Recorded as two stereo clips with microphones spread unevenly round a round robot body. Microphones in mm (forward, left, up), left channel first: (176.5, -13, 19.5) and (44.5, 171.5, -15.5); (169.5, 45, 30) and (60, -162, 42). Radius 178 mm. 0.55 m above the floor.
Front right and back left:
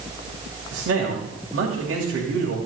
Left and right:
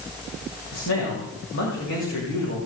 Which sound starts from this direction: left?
A man speaking, at 0.7 s.